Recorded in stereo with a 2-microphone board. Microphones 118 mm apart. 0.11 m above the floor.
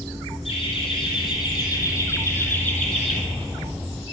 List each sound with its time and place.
0.5 s laughter: 50° left (ahead or behind), 4 m; by 3.2 s 5° left (ahead or behind), 3.5 m